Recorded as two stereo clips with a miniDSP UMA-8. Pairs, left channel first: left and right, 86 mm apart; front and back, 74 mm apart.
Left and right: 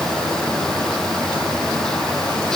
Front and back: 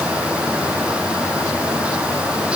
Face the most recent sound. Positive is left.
No sound to turn to.